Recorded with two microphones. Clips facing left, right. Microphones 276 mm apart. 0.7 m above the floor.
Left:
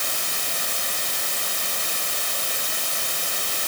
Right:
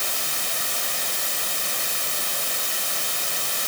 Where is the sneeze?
I don't hear a sneeze.